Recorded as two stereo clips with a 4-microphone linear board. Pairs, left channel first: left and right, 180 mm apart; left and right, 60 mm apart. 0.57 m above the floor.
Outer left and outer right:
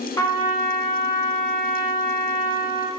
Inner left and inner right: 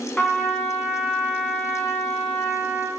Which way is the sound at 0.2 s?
20° left (ahead or behind).